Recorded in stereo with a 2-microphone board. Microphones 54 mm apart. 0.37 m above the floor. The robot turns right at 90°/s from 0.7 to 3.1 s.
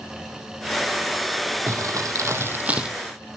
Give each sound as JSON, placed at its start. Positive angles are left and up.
{"t": 1.7, "sound": "crumpling", "azimuth_deg": -120, "distance_m": 2.0}